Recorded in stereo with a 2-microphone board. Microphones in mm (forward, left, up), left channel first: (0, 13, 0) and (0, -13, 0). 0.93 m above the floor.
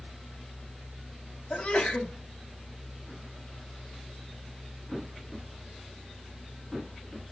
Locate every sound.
1.5 s a sneeze: 65° left (ahead or behind), 1.1 m